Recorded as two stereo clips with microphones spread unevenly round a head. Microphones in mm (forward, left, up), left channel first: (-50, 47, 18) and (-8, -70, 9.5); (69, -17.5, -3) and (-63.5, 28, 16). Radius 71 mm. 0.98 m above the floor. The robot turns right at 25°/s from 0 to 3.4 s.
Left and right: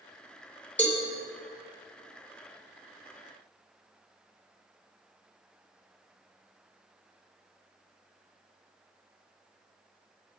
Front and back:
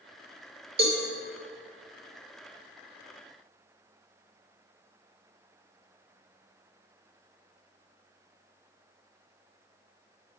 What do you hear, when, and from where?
0.8 s a cowbell: 170° right, 2.5 m; by 1.0 s 165° right, 2.5 m